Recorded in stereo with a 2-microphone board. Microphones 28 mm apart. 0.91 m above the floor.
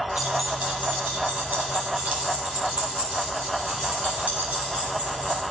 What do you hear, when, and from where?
0.2 s keys jangling: 55° right (ahead or behind), 1.9 m; by 5.4 s 80° right, 5 m